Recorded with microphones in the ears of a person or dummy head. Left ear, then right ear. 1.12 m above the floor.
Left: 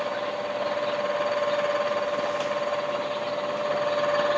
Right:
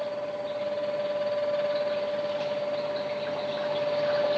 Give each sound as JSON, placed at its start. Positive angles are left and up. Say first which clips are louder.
{"t": 0.0, "sound": "a fan", "louder": "left 3 dB", "side_deg": 50, "distance_m": 0.9}